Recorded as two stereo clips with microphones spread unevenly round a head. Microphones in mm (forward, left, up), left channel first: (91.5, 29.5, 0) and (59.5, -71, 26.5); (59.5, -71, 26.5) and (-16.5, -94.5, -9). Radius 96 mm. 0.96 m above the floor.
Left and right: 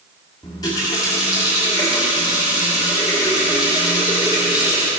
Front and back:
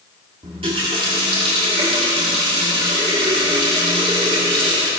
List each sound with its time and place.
0.4 s a running tap: 145° left, 1.1 m